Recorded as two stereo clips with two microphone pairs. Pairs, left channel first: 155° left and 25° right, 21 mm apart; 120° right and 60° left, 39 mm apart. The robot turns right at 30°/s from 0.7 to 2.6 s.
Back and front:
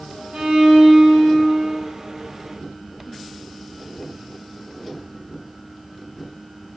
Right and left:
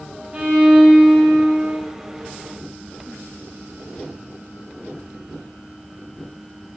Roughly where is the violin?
Ahead.